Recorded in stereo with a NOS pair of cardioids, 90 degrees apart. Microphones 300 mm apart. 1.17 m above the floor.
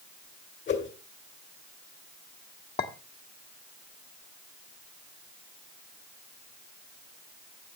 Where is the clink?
35° left, 1.6 m.